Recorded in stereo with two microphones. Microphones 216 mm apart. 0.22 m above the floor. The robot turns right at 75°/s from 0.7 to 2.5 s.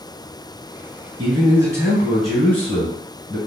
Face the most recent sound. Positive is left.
turn(degrees=10)  # may be behind; listen again after turning